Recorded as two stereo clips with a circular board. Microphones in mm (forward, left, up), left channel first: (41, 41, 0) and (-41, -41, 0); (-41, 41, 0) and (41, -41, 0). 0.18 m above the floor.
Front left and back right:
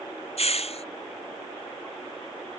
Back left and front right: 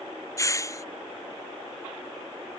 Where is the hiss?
70° left.